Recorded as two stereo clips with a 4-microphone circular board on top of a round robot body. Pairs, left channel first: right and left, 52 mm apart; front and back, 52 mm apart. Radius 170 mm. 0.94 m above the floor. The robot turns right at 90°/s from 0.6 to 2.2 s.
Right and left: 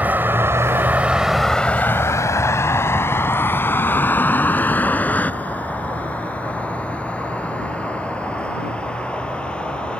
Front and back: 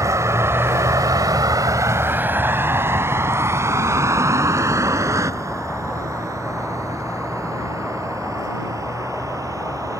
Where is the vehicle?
155° left; by 10.0 s 160° right.